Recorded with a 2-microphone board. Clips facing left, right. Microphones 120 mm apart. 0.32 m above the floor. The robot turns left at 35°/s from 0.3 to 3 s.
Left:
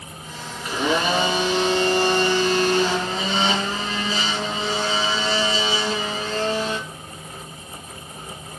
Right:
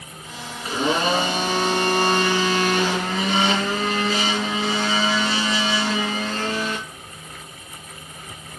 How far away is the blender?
About 4 m.